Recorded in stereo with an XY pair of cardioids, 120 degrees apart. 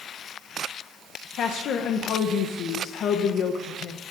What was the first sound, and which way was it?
A woman speaking, 60° left.